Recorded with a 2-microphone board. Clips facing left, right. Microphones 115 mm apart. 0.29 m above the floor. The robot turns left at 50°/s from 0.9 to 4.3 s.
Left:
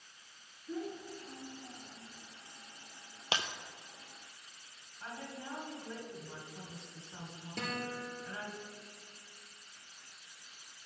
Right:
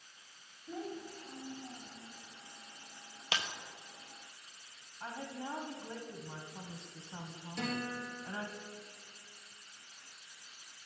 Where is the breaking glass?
30° left (ahead or behind), 0.6 m; by 3.5 s 25° left (ahead or behind), 0.6 m.